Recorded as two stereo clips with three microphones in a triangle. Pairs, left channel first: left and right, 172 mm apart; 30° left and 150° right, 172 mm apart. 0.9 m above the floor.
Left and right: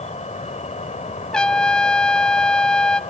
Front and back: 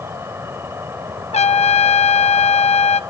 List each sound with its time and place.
0.0 s an insect: 135° left, 1.5 m
1.3 s a trumpet: 5° left, 0.8 m